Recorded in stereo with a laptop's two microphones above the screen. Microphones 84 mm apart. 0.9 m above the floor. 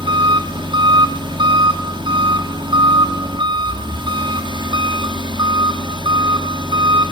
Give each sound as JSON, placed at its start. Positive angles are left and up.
{"t": 0.0, "sound": "an engine running", "side_deg": -70, "distance_m": 1.8}